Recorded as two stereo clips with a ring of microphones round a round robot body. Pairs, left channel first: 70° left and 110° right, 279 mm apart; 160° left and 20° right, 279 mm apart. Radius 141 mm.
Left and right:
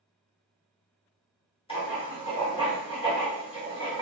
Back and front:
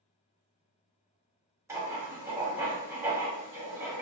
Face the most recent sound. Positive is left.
turn(degrees=40)